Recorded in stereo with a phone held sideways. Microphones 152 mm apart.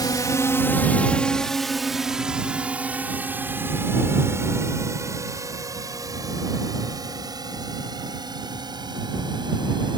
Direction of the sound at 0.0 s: 25° left (ahead or behind).